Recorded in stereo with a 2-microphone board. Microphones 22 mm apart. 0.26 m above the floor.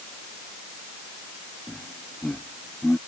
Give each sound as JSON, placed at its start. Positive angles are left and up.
{"t": 1.7, "sound": "laughter", "side_deg": 80}